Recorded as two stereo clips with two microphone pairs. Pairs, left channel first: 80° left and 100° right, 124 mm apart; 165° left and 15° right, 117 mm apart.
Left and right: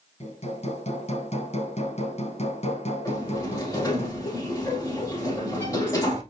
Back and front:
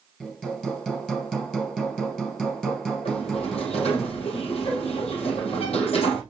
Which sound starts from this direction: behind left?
A sliding door, at 3.0 s.